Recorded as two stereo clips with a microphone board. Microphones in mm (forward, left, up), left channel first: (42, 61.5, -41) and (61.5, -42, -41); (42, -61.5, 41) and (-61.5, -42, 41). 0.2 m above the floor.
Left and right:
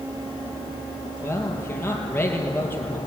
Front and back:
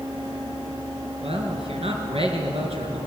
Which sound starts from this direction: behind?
A man speaking, at 1.2 s.